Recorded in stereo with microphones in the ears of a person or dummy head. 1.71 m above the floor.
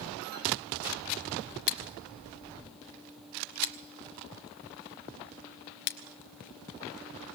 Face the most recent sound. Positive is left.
turn(degrees=55)  # may be behind; listen again after turning